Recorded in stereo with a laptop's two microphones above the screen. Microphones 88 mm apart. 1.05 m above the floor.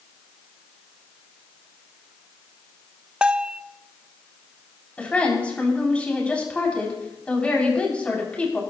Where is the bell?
10° right (ahead or behind), 0.7 m.